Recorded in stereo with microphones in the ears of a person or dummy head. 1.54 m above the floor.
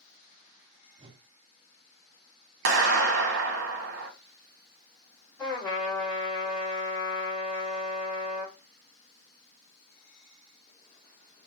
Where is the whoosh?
30° right (ahead or behind), 0.5 m.